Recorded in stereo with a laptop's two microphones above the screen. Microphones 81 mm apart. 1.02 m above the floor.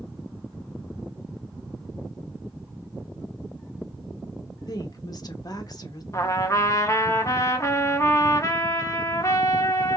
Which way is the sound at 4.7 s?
55° left (ahead or behind).